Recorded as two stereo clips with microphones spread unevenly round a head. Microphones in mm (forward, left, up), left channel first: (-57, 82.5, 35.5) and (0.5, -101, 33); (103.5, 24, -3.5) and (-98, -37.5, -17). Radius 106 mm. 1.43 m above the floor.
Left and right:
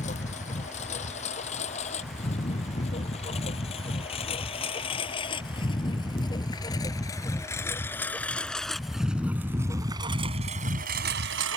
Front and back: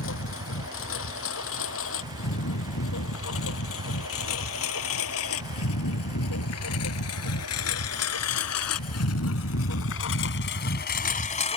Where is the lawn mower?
50° left; by 11.6 s 40° right.